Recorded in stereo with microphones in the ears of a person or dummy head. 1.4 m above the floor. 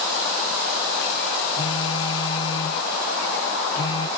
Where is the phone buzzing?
30° left (ahead or behind).